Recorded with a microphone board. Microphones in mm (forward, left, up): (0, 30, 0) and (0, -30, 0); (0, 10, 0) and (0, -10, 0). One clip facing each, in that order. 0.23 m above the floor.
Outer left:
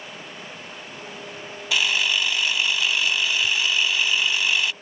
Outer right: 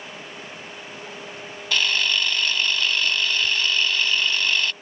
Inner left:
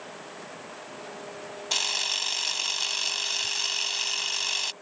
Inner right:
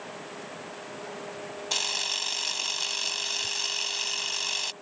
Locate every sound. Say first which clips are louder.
1.7 s a camera shutter: even, inner left 2 dB; 10° left (ahead or behind)